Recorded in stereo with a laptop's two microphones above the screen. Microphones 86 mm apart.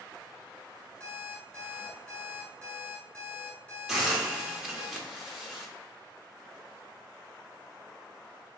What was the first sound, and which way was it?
An alarm clock, 15° left (ahead or behind).